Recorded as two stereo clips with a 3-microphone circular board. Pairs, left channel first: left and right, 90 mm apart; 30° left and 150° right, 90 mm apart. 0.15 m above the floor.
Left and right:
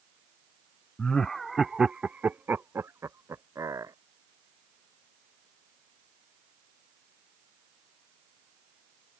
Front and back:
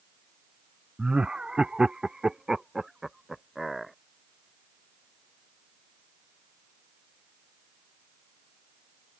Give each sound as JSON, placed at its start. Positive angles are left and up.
{"t": 1.0, "sound": "laughter", "azimuth_deg": 150}